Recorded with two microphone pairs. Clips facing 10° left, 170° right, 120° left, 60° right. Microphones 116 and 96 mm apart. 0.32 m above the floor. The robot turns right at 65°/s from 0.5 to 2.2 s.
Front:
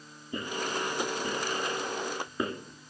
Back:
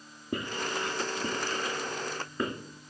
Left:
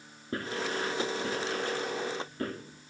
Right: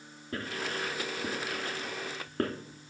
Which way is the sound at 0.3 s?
Straight behind.